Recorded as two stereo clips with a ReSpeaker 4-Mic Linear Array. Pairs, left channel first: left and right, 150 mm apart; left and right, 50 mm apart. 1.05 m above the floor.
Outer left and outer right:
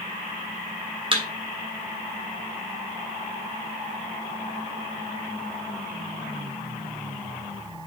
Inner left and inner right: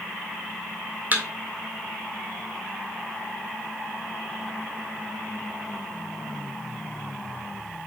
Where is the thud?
35° right (ahead or behind), 1.7 m.